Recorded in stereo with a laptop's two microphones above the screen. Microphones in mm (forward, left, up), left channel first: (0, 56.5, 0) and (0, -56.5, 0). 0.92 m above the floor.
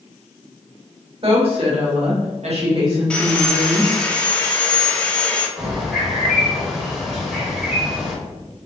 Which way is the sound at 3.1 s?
10° left (ahead or behind).